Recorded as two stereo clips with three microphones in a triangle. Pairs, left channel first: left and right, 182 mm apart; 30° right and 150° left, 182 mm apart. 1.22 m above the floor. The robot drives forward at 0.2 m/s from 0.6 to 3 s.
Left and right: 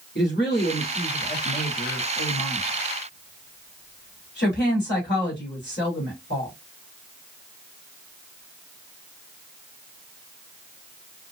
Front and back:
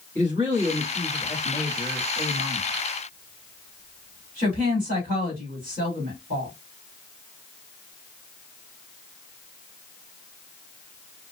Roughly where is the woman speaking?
Left.